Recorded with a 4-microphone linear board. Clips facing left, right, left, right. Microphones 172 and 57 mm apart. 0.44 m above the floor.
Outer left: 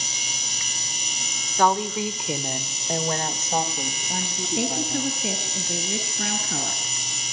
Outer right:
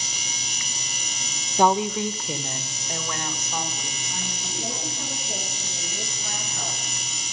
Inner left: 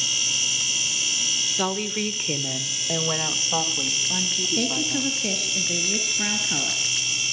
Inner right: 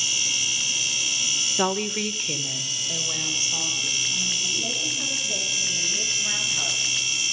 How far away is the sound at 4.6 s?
About 4 m.